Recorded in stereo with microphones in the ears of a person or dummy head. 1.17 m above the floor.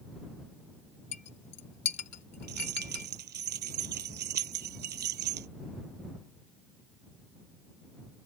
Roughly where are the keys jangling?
Right.